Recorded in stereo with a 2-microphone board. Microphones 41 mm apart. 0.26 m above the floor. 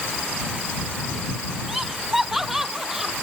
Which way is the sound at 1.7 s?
5° right (ahead or behind).